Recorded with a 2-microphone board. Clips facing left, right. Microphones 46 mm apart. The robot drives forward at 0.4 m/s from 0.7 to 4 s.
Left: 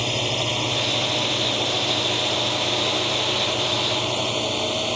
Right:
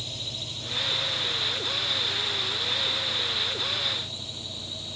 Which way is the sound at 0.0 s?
65° left (ahead or behind).